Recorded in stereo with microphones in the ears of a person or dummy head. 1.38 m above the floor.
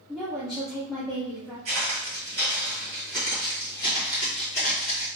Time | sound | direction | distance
0.1 | a woman speaking | 5° left (ahead or behind) | 0.6 m
1.6 | footsteps | 25° right (ahead or behind) | 1.6 m